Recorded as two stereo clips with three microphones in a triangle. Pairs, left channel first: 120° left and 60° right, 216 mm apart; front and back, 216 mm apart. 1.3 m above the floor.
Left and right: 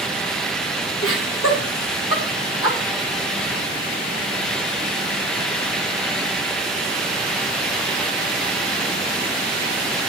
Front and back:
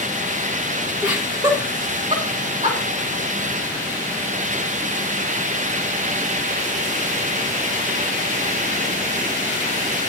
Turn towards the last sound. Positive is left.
turn(degrees=125)